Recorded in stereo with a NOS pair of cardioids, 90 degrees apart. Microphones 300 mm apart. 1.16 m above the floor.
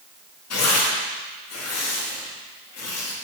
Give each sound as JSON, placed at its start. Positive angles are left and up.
{"t": 0.5, "sound": "tearing paper", "azimuth_deg": 60, "distance_m": 2.5}